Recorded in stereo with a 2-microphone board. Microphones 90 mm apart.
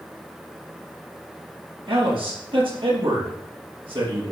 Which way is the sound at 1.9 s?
75° right (ahead or behind).